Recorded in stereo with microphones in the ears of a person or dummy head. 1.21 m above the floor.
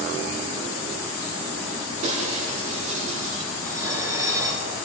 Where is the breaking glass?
40° right (ahead or behind), 6 m.